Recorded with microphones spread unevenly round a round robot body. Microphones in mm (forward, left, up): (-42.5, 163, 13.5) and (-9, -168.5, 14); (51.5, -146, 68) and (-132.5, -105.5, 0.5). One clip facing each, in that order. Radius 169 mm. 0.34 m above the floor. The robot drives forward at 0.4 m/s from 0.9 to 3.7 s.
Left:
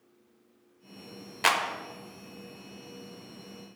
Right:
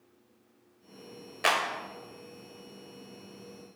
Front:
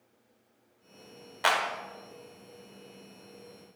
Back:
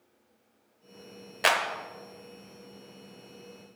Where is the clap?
160° left, 0.7 m; by 1.6 s 165° left, 0.8 m.